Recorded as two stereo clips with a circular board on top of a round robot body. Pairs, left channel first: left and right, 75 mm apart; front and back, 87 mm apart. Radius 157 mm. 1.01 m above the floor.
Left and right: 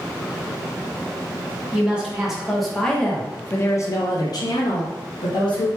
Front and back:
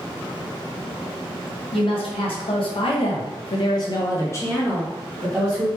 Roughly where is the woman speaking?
Ahead.